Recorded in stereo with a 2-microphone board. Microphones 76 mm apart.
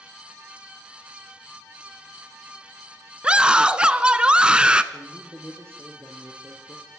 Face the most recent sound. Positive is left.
turn(degrees=-30)  # may be behind; listen again after turning